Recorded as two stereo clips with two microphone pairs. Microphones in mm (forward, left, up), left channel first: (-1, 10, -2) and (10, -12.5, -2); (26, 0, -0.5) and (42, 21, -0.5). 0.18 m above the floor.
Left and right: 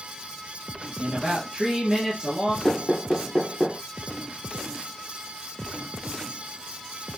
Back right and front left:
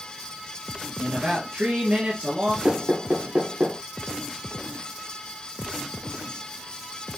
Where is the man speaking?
15° left, 3 m.